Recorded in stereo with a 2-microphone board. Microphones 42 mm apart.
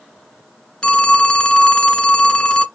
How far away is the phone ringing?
About 0.7 m.